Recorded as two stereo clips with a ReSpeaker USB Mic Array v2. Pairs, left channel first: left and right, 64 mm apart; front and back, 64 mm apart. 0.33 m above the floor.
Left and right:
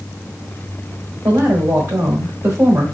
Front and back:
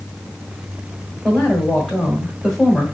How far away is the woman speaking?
About 1.4 m.